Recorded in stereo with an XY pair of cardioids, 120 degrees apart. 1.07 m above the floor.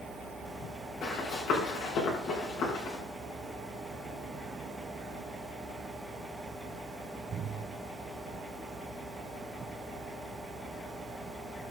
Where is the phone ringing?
No phone ringing in this recording.